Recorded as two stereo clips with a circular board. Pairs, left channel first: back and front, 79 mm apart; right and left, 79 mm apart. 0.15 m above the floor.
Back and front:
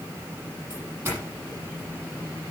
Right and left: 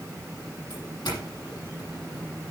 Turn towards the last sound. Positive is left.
turn(degrees=-60)